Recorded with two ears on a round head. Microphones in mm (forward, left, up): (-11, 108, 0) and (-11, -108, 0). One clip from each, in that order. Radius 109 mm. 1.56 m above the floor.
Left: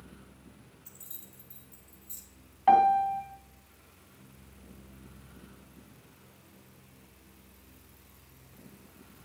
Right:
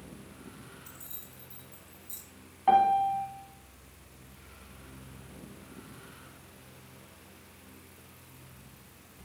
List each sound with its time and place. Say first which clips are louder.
0.8 s keys jangling: right 4 dB; centre (ahead or behind), 5 m
2.7 s a piano: left 1 dB; 20° left (ahead or behind), 1.9 m